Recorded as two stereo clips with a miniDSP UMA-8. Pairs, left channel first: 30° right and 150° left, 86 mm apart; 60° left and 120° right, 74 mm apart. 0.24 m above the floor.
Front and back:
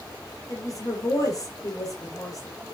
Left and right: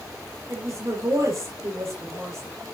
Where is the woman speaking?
75° right, 5.5 m.